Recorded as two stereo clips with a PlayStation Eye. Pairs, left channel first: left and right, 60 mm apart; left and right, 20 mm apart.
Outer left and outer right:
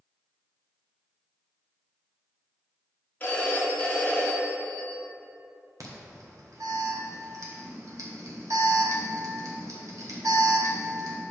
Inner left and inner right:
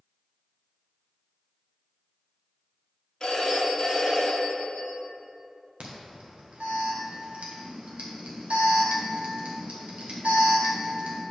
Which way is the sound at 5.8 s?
75° right (ahead or behind).